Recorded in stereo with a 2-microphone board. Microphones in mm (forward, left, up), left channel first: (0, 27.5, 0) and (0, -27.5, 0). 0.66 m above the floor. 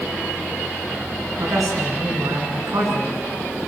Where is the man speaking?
80° right, 8 m.